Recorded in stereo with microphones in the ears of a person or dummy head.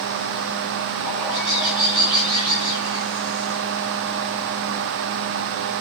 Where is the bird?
25° left (ahead or behind), 5.5 m.